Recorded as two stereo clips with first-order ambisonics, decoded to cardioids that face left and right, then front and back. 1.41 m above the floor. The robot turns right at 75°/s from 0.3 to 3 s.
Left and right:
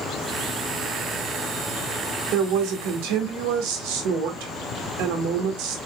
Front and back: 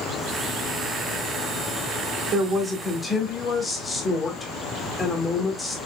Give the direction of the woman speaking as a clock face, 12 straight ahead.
4 o'clock.